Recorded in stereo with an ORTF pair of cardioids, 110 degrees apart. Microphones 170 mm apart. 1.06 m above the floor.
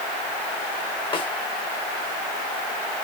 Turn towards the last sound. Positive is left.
turn(degrees=30)